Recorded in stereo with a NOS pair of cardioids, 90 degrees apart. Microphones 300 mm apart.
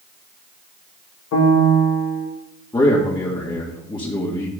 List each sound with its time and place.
1.3 s a piano: 65° left, 2 m
2.7 s a man speaking: 15° left, 1.9 m